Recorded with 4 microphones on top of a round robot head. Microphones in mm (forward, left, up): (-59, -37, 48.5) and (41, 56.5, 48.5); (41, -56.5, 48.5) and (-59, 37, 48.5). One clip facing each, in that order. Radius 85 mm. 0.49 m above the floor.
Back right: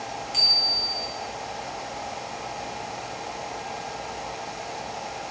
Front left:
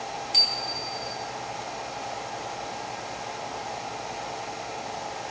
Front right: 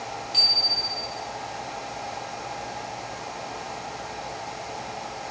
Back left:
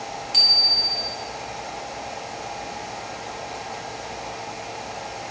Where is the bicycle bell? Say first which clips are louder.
Even, back left 1 dB; 100° left, 3.5 m.